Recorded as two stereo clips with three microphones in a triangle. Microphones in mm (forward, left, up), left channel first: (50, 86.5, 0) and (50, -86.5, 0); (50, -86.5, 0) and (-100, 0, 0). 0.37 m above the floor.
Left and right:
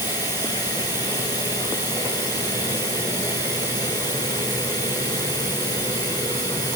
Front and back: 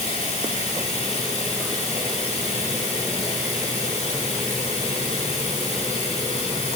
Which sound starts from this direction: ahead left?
Running water, at 0.0 s.